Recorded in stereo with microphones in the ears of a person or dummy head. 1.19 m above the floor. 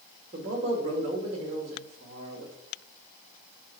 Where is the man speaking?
30° right (ahead or behind), 2.5 m.